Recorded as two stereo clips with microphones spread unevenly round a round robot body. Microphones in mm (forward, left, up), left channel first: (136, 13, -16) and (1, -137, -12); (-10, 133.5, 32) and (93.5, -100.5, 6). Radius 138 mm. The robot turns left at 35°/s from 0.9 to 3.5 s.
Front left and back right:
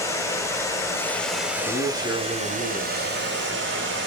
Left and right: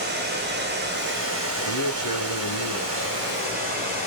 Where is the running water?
25° right, 2 m; by 4.1 s 115° right, 2 m.